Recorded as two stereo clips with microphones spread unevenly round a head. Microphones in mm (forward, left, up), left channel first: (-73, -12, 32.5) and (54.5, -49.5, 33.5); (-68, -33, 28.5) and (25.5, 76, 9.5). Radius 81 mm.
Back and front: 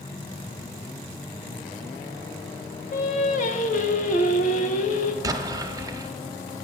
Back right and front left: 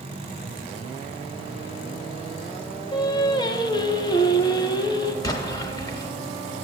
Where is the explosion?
70° right, 1.1 m.